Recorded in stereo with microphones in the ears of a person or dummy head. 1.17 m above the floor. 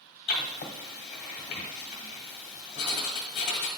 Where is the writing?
45° left (ahead or behind), 1.3 m.